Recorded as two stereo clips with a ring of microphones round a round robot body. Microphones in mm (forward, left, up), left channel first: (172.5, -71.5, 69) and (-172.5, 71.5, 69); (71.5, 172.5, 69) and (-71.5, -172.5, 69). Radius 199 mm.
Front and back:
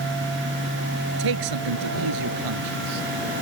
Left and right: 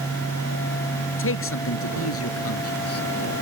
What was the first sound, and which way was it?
A man speaking, 125° left.